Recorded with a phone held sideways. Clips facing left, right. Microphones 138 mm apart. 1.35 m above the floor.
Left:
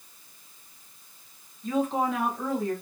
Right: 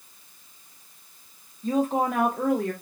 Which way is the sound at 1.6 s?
35° right (ahead or behind).